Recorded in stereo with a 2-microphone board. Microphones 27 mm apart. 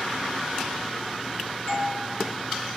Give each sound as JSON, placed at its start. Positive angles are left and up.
{"t": 1.7, "sound": "a doorbell", "side_deg": 70, "distance_m": 4.0}